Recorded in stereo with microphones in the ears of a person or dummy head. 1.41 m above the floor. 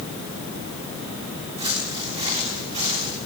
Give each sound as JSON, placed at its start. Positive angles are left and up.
{"t": 1.6, "sound": "footsteps", "side_deg": -30, "distance_m": 6.5}